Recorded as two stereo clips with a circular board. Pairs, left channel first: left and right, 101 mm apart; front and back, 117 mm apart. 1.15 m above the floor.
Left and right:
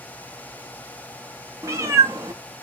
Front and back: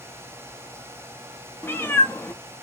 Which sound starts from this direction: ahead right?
A cat meowing, at 1.6 s.